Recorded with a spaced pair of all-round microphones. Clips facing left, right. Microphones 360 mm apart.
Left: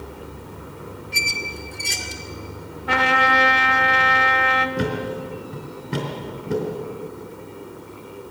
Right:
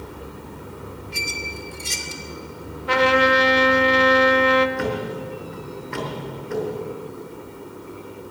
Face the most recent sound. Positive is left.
turn(degrees=50)  # may be behind; listen again after turning